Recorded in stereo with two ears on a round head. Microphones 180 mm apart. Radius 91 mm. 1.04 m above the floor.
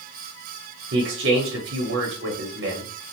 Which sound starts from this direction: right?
A man speaking, at 0.9 s.